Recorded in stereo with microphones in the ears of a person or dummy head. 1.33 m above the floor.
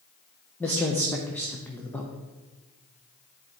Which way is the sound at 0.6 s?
10° left (ahead or behind).